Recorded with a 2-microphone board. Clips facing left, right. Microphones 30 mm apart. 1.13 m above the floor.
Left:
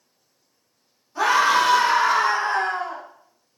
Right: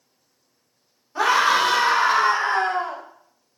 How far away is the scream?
About 3 m.